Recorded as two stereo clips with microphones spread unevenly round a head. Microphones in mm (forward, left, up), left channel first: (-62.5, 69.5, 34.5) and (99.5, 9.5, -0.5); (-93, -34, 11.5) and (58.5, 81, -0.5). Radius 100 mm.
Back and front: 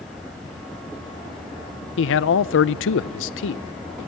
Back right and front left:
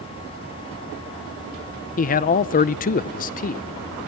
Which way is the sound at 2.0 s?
170° left.